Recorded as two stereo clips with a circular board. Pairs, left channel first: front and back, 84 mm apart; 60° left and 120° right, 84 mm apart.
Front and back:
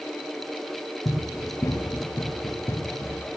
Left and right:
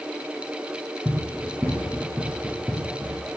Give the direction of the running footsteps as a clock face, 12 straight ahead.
1 o'clock.